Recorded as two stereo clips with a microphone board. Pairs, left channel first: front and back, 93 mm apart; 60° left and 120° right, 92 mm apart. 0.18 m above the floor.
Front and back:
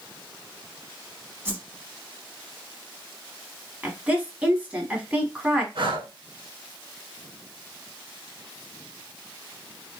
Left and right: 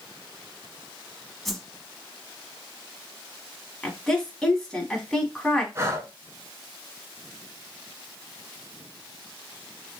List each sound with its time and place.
1.4 s a whoosh: 145° left, 0.6 m
3.8 s a woman speaking: 130° left, 1.0 m
5.8 s breathing: 175° right, 0.5 m